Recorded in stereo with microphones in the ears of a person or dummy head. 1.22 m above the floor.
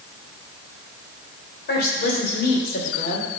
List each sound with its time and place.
1.7 s a woman speaking: 55° left (ahead or behind), 4 m; by 3.3 s 45° left (ahead or behind), 3 m